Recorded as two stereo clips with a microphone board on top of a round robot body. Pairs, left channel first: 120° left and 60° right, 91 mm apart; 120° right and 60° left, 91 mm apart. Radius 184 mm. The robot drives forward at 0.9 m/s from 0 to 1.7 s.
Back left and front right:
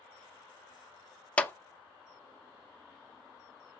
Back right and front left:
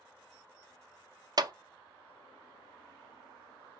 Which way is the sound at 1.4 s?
50° left.